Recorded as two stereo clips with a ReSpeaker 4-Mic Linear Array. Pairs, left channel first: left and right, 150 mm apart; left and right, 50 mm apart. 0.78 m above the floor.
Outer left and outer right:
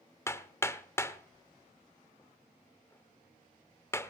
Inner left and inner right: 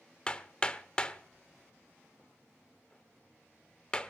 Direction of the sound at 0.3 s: 20° left (ahead or behind).